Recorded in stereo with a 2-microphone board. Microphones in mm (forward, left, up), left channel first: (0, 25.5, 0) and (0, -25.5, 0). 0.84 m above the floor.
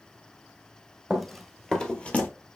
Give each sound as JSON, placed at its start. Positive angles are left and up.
{"t": 1.1, "sound": "running footsteps", "side_deg": -10, "distance_m": 1.0}